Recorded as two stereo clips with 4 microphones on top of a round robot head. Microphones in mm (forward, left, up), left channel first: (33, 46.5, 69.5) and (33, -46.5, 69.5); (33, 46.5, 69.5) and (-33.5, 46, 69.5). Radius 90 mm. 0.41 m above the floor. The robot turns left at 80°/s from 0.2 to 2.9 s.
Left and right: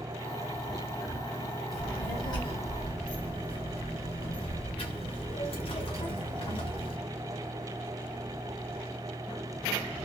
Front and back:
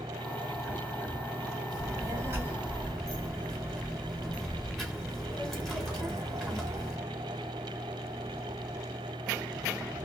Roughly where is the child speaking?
Behind.